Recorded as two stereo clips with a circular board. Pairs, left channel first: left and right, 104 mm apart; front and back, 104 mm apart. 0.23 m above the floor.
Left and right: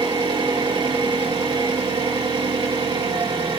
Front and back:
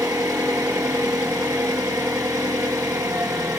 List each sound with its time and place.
0.0 s an engine running: 125° right, 2.0 m